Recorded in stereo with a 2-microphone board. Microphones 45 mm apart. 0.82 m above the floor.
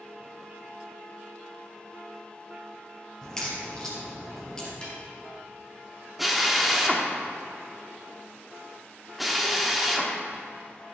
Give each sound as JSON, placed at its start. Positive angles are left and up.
{"t": 3.2, "sound": "a crack", "side_deg": 10, "distance_m": 3.0}
{"t": 4.8, "sound": "a snare drum", "side_deg": 20, "distance_m": 3.0}
{"t": 6.2, "sound": "a drill", "side_deg": -5, "distance_m": 1.0}